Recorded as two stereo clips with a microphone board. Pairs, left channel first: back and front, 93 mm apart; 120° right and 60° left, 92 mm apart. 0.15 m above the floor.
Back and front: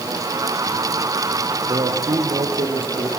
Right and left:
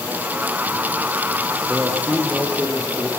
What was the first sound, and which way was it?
A man speaking, 25° right.